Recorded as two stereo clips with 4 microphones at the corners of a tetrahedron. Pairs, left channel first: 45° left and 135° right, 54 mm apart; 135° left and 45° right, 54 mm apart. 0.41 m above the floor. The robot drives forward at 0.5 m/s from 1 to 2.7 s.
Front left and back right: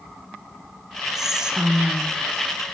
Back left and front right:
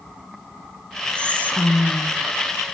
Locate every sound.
1.1 s whispering: 145° left, 0.8 m; by 2.7 s 170° left, 1.2 m